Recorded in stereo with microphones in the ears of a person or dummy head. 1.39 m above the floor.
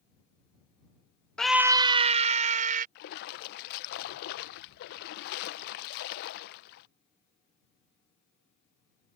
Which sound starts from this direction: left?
A splash, at 3.0 s.